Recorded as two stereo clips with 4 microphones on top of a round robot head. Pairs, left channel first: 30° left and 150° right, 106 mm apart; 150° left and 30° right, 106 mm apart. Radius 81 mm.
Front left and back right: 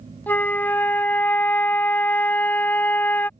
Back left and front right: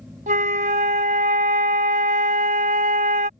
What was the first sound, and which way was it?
A flute, 45° right.